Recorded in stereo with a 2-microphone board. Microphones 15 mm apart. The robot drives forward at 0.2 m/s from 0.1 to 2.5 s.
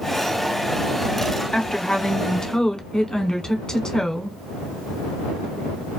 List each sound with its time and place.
1.5 s a woman speaking: 60° left (ahead or behind), 0.8 m; by 4.4 s 50° left (ahead or behind), 1.0 m